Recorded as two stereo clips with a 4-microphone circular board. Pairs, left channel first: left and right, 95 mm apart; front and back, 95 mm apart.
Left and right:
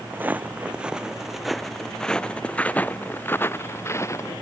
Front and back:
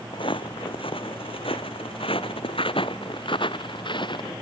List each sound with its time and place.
0.1 s footsteps: 20° right; by 4.3 s 35° left